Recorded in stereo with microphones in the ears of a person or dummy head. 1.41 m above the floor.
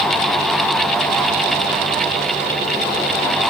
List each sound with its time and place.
Only background noise.